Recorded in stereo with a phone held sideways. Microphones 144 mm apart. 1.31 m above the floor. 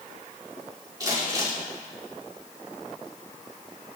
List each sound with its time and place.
1.0 s crumpling: 25° right (ahead or behind), 4 m